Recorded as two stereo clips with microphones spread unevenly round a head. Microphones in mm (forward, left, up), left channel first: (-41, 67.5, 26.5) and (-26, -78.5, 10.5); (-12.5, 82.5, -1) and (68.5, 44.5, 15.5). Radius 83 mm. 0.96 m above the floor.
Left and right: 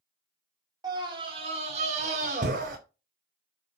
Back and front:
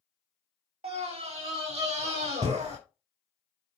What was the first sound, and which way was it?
A scream, 15° right.